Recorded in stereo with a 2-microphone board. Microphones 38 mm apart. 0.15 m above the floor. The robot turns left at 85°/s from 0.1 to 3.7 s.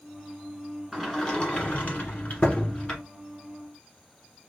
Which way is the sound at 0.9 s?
170° right.